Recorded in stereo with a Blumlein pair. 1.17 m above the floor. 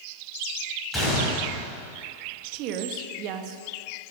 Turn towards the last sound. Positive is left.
turn(degrees=-40)